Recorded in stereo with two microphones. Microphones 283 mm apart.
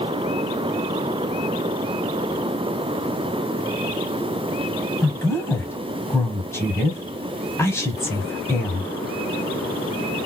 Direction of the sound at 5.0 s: 10° left (ahead or behind).